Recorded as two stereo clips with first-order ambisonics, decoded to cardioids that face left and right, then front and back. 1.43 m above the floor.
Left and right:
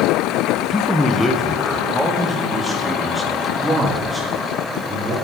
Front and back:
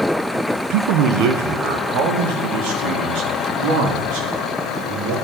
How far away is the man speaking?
About 1.2 m.